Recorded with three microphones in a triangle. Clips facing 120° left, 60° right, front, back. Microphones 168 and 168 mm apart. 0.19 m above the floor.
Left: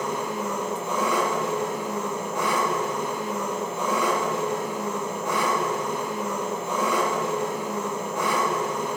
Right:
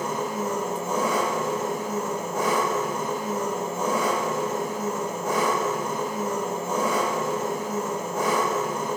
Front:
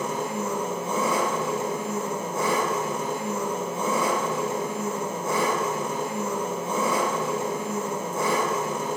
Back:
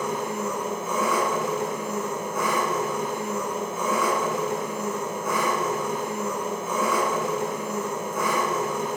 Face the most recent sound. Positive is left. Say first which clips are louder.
# right 1 dB, even
turn(degrees=-40)